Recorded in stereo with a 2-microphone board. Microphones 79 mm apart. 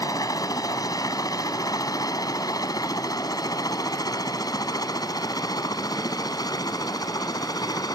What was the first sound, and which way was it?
A helicopter, 55° left (ahead or behind).